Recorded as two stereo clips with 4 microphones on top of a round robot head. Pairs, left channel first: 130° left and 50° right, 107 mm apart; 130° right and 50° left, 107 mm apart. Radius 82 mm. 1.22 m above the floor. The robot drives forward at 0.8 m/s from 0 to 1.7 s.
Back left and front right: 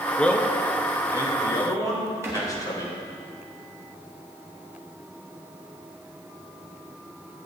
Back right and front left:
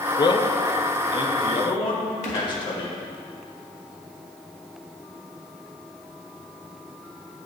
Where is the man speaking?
150° right, 0.7 m; by 3.0 s 170° right, 1.7 m.